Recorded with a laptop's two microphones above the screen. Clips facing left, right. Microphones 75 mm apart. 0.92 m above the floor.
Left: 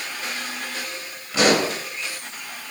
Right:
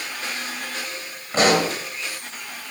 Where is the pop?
40° right (ahead or behind), 4 m.